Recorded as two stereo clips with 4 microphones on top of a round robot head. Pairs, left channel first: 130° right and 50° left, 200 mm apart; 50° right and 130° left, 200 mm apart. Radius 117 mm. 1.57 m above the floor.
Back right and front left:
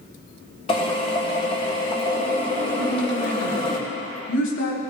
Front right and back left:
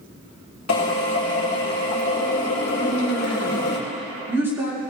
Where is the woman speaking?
155° right, 5 m.